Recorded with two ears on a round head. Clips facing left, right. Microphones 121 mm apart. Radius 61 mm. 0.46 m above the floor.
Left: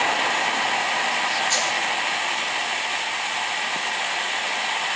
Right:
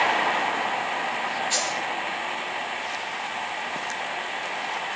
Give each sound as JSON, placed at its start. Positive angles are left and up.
{"t": 1.5, "sound": "a dropped coin", "side_deg": 45, "distance_m": 4.0}